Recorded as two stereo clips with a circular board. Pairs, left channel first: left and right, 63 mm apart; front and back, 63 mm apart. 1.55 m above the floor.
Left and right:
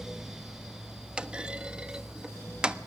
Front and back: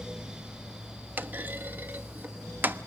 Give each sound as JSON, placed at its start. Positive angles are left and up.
{"t": 1.2, "sound": "a clunk", "azimuth_deg": -155, "distance_m": 1.0}